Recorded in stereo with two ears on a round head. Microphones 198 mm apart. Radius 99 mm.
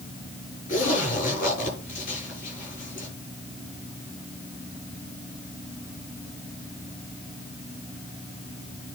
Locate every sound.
0.7 s a zipper: 35° left (ahead or behind), 7 m